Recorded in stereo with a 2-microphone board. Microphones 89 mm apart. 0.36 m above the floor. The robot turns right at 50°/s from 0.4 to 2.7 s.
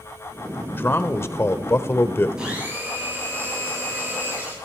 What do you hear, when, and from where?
0.7 s a man speaking: 20° left (ahead or behind), 0.9 m; by 2.3 s 25° left (ahead or behind), 0.9 m
2.4 s a blender: 10° right (ahead or behind), 7 m; by 4.5 s 25° right (ahead or behind), 7 m